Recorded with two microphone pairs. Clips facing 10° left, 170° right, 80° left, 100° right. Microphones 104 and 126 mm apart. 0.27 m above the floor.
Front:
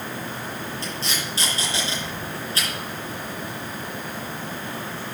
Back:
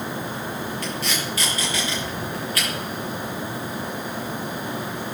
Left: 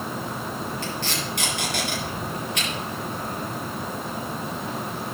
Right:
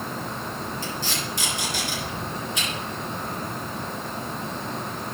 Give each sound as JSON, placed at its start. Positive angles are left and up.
{"t": 0.8, "sound": "tape being pulled", "azimuth_deg": 70, "distance_m": 6.0}